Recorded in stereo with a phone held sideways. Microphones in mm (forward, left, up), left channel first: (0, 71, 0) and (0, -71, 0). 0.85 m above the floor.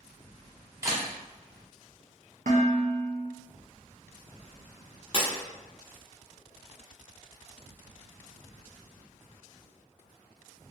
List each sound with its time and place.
0.8 s a camera shutter: 20° right (ahead or behind), 0.8 m
2.5 s dishes clattering: 65° right (ahead or behind), 0.7 m
5.1 s breaking glass: 40° left (ahead or behind), 0.9 m